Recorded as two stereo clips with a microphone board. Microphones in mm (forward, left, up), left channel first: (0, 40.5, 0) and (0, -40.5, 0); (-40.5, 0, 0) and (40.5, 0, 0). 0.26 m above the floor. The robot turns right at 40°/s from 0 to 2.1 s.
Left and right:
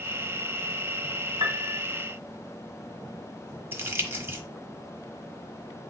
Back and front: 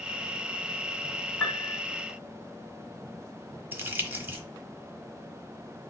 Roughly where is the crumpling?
Ahead right.